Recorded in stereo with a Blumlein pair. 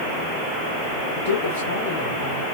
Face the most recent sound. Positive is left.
turn(degrees=65)